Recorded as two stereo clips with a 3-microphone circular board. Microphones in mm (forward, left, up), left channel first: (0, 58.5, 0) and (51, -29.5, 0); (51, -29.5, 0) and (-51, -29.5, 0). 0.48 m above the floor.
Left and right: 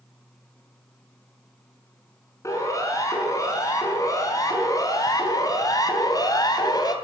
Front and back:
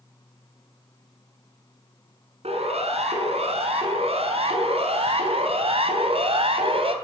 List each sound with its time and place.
2.4 s a siren: straight behind, 5.5 m; by 7.0 s 165° left, 3.5 m